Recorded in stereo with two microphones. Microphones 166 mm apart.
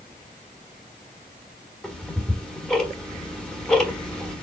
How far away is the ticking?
About 1.1 m.